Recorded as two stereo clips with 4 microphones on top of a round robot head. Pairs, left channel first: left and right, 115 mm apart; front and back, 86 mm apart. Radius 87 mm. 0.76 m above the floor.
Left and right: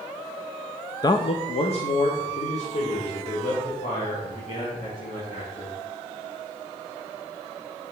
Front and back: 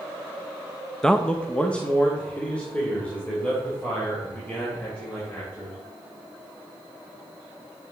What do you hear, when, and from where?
1.0 s a man speaking: 75° left, 0.6 m